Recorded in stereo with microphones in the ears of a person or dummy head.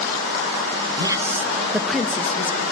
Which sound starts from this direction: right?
A woman speaking, at 1.0 s.